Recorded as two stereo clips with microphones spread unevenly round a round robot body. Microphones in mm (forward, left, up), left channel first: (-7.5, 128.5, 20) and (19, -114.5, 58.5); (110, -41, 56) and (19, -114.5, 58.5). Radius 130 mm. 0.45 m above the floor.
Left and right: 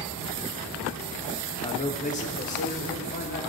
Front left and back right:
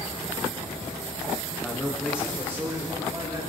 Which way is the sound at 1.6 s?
110° left.